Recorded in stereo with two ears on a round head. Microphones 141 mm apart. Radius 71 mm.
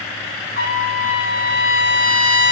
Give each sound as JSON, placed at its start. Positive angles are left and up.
{"t": 0.6, "sound": "a trumpet", "side_deg": 60, "distance_m": 2.5}